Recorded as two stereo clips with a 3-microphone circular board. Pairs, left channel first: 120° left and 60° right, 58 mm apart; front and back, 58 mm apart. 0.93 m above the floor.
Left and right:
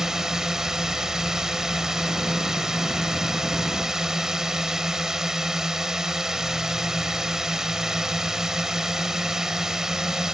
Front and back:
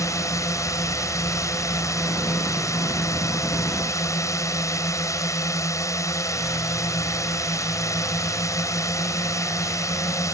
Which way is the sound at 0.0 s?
20° left.